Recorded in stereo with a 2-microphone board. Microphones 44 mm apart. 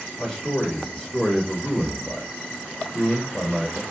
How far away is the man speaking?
About 1.1 m.